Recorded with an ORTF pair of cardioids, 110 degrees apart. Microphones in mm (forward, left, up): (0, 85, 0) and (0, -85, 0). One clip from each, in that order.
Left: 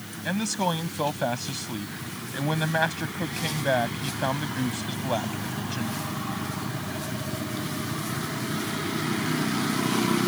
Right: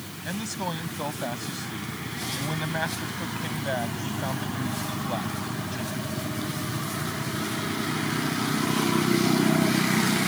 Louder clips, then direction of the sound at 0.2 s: Left 5 dB; 35° left.